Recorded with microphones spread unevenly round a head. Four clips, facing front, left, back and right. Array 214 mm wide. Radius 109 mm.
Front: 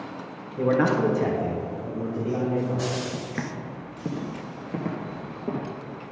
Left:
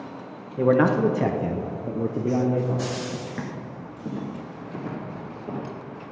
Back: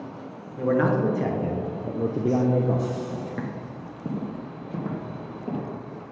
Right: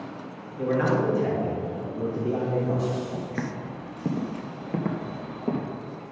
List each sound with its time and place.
0.6 s a man speaking: 70° left, 1.1 m; by 2.9 s 175° right, 1.0 m
3.1 s footsteps: 15° right, 1.2 m; by 5.7 s 65° right, 2.0 m